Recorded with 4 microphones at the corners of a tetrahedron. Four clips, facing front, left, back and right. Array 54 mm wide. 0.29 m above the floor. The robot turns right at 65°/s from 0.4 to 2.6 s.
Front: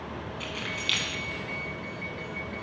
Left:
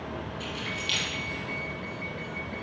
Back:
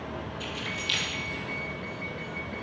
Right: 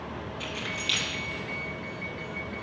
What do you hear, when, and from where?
0.4 s keys jangling: 40° right, 2 m; by 1.1 s 5° left, 2 m